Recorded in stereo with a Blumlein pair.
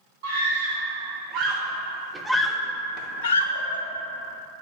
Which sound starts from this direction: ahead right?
A scream, at 0.2 s.